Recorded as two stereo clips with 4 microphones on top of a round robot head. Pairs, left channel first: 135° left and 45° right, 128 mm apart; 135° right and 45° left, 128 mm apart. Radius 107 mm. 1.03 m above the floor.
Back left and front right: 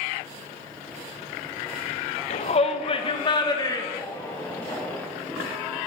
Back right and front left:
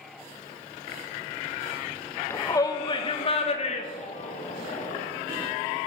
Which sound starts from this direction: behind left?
A shout, at 2.3 s.